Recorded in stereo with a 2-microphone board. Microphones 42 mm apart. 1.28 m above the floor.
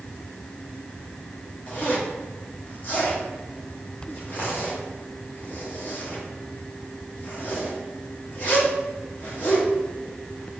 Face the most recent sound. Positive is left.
turn(degrees=40)  # may be behind; listen again after turning